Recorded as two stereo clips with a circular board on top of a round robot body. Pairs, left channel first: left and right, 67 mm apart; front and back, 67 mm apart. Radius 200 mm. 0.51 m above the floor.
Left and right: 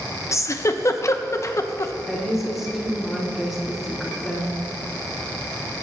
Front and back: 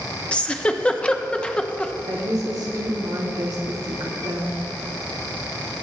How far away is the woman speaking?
About 2 m.